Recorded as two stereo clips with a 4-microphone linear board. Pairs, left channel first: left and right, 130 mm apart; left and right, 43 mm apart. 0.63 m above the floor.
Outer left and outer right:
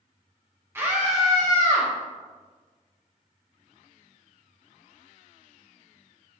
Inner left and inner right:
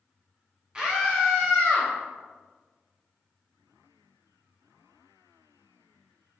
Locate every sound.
0.8 s a scream: 15° right (ahead or behind), 0.7 m; by 1.9 s 20° left (ahead or behind), 0.9 m